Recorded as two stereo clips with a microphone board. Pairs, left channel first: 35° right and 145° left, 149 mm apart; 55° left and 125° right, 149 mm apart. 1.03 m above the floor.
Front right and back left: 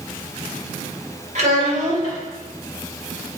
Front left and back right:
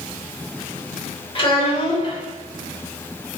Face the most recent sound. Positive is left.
turn(degrees=110)